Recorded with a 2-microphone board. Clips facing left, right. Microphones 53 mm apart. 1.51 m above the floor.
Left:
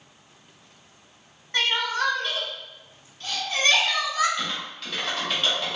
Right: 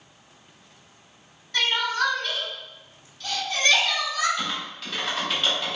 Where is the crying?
40° left (ahead or behind), 1.8 m.